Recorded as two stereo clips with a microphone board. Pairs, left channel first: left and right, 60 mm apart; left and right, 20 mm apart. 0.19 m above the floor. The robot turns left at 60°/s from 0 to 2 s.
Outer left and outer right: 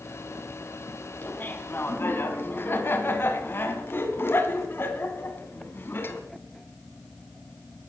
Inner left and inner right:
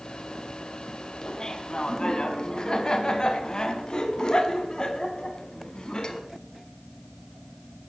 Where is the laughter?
135° left, 1.5 m; by 6.2 s 90° left, 1.5 m.